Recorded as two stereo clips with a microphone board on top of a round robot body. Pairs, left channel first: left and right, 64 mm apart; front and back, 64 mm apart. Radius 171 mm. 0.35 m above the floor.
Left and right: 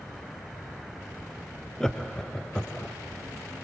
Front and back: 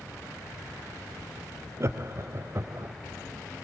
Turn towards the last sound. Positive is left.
turn(degrees=170)